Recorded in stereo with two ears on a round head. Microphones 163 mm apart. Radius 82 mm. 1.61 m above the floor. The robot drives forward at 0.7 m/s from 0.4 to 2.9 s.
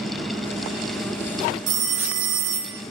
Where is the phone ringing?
65° right (ahead or behind), 1.6 m.